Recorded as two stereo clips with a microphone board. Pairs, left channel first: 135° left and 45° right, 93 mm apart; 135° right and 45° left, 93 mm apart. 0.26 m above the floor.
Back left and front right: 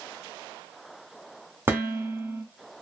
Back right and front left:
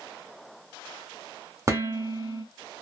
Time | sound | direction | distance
1.7 | dishes clattering | 10° left | 1.1 m